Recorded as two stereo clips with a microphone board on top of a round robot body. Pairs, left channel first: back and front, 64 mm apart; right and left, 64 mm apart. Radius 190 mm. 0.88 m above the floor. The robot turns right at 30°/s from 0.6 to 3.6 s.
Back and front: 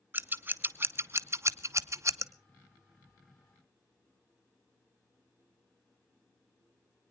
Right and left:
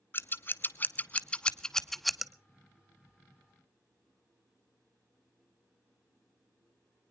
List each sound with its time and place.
0.1 s scissors: 45° right, 1.0 m; by 2.3 s 5° left, 1.0 m